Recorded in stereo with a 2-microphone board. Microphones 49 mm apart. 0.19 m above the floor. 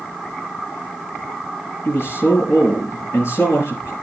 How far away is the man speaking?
About 4 m.